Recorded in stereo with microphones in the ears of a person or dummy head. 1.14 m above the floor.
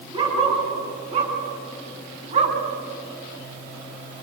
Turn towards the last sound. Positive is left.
turn(degrees=-40)  # may be behind; listen again after turning